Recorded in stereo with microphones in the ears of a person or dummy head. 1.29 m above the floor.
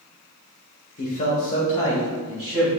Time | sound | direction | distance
1.0 | a man speaking | 45° left (ahead or behind) | 0.6 m